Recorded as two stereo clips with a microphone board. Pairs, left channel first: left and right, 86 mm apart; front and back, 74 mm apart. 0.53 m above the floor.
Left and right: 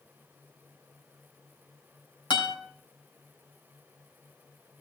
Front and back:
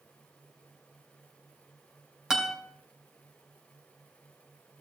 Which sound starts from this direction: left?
A guitar, at 2.3 s.